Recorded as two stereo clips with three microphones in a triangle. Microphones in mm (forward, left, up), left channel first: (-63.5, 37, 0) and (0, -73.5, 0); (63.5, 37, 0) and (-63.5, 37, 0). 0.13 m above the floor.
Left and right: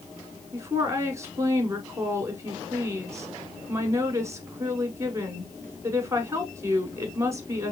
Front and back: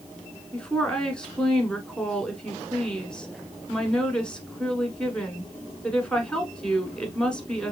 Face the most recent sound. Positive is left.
turn(degrees=-70)